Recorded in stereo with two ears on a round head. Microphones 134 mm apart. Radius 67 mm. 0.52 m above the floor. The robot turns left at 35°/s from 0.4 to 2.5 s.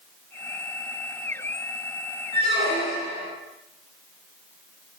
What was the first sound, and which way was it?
A squeak, 45° left (ahead or behind).